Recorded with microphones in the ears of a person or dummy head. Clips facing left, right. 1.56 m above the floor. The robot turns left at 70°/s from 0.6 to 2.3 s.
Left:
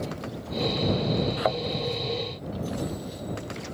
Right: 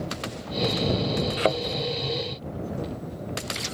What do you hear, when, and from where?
1.4 s a thud: 35° right (ahead or behind); by 1.6 s 50° right (ahead or behind)